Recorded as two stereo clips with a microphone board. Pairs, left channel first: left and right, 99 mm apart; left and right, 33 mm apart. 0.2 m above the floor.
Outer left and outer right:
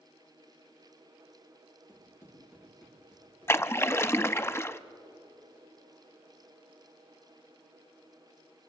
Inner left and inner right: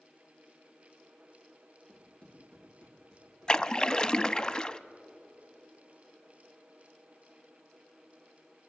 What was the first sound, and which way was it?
Running footsteps, 30° left (ahead or behind).